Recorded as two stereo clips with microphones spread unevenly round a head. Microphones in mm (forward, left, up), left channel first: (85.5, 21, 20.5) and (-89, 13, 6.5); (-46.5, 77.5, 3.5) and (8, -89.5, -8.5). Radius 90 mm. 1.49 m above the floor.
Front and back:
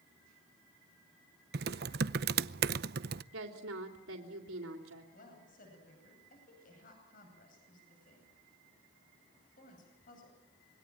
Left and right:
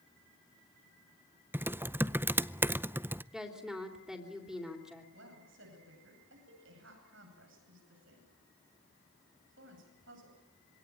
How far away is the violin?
I don't hear a violin.